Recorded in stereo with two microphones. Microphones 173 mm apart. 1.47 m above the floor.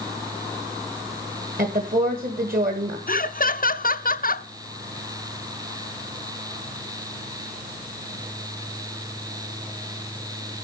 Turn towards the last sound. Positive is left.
turn(degrees=55)  # may be behind; listen again after turning